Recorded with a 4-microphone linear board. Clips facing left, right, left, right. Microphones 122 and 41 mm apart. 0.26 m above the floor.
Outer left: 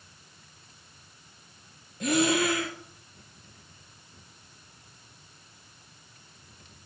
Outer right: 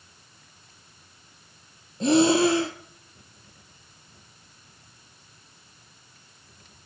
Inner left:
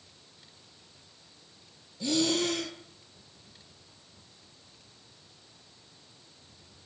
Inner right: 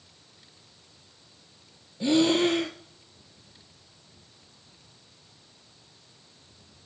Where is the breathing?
30° right (ahead or behind), 0.7 m.